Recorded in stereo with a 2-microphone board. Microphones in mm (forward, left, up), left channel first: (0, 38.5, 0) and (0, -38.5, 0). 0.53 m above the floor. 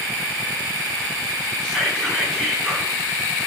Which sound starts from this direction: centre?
Whispering, at 1.6 s.